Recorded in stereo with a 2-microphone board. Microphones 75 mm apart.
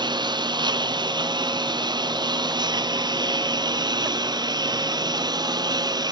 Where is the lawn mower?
75° right (ahead or behind); by 6.1 s 65° right (ahead or behind).